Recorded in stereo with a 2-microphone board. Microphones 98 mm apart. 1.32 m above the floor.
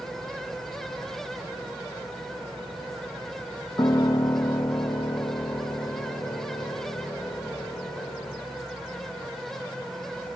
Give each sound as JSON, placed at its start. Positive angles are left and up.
{"t": 3.8, "sound": "a piano", "side_deg": 40, "distance_m": 0.5}